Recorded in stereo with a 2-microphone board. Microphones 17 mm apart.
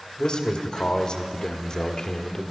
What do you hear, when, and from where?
0.2 s a man speaking: 50° left (ahead or behind), 1.6 m; by 2.5 s 30° left (ahead or behind), 1.1 m